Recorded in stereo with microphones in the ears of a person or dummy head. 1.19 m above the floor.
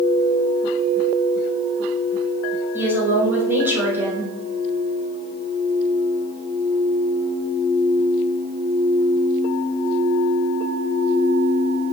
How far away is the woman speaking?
About 5 m.